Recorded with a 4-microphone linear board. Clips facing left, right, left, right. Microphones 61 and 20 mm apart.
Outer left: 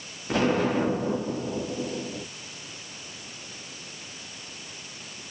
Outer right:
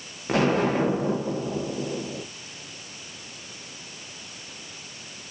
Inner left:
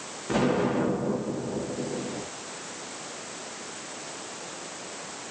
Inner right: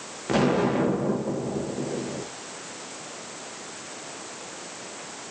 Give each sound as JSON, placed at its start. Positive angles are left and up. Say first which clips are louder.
{"t": 0.3, "sound": "an explosion", "louder": "outer right 2 dB, inner right 2 dB", "side_deg": -60, "distance_m": 1.9}